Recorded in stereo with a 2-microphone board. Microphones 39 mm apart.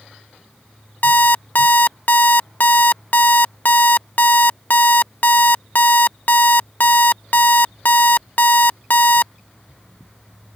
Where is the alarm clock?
50° left (ahead or behind).